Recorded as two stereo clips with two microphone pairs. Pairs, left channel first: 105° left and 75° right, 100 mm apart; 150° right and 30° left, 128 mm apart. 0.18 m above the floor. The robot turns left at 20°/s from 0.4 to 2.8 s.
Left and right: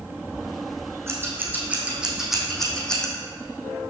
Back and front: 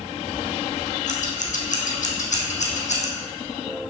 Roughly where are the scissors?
Behind right.